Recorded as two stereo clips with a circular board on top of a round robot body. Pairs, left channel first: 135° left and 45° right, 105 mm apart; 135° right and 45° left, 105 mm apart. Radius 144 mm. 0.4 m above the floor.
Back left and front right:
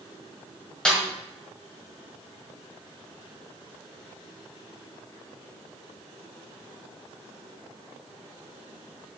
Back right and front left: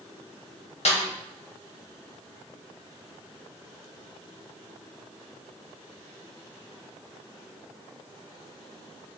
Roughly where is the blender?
No blender in this recording.